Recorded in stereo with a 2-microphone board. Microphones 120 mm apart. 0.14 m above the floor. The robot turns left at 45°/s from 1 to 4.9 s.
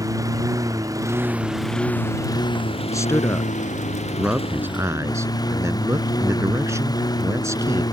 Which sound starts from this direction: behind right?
A lawn mower, at 0.0 s.